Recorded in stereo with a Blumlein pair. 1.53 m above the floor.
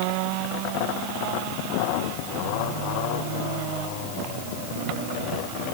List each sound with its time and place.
Only background noise.